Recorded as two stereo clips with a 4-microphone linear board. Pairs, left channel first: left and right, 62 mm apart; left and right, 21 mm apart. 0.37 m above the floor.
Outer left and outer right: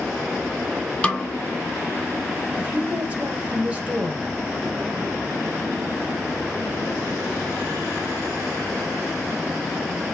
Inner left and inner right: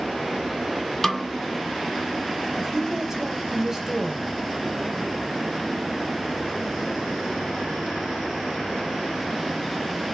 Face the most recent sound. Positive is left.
turn(degrees=-20)  # may be behind; listen again after turning